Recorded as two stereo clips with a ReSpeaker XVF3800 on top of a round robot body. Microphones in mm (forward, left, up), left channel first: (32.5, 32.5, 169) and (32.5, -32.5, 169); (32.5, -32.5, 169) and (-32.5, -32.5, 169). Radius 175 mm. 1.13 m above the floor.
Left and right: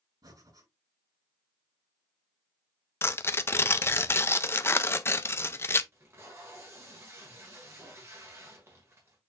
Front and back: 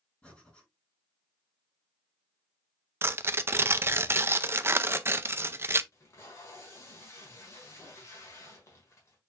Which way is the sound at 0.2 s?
70° right.